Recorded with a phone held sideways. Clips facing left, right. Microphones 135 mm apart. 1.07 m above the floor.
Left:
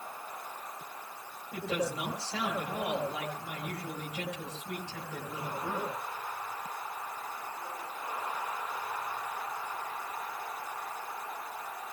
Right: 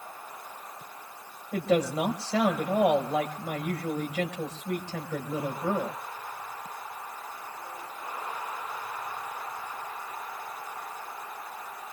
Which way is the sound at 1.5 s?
85° right.